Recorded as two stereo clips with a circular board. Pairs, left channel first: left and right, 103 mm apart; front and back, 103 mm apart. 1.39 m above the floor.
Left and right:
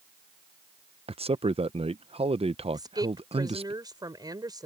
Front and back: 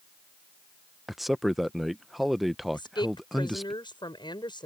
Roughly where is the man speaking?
Right.